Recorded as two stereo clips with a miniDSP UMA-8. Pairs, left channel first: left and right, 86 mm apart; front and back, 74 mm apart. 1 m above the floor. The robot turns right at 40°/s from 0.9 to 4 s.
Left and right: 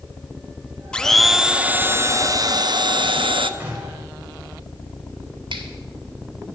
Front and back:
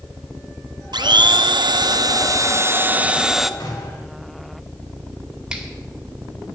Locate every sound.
0.9 s a blender: 170° left, 0.7 m; by 3.5 s 90° right, 0.7 m
3.6 s a gunshot: 25° right, 4 m; by 4.1 s 10° right, 4 m
5.5 s a finger snap: 100° right, 1.8 m